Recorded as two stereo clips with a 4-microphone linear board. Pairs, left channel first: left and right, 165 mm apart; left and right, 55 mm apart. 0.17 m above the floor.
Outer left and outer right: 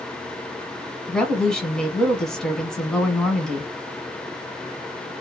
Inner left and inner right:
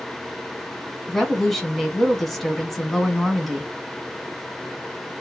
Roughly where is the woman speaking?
Centre.